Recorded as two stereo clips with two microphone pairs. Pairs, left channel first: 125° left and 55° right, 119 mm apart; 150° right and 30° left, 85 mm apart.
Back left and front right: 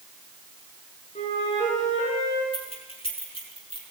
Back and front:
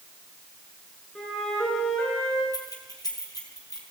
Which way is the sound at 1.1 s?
130° left.